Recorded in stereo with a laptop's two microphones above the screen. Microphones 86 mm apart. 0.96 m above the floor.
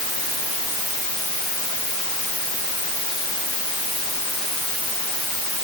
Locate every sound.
Only background noise.